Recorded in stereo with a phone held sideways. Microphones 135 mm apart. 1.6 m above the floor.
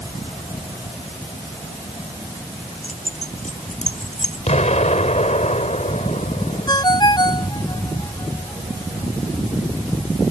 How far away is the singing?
I don't hear singing.